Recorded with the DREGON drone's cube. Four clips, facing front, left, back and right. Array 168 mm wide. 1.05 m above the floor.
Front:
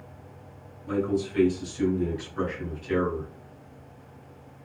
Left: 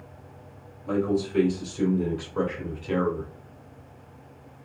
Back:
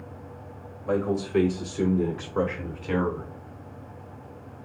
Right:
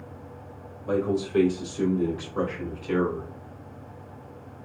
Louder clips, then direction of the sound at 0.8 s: Even, back 1 dB; 160° right.